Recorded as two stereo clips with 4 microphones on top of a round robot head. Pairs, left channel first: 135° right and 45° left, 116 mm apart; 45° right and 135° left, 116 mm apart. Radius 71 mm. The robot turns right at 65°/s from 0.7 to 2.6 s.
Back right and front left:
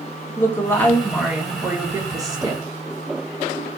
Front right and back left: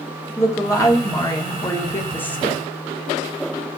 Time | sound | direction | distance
0.4 | a woman speaking | 80° right | 1.3 m